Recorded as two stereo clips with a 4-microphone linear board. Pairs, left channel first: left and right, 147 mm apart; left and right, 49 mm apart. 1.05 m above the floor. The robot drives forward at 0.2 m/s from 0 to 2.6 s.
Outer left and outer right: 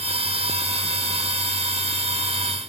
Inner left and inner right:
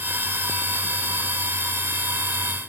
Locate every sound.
Only background noise.